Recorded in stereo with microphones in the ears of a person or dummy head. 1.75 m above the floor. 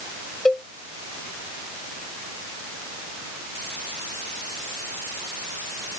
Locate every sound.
0.5 s a cowbell: centre (ahead or behind)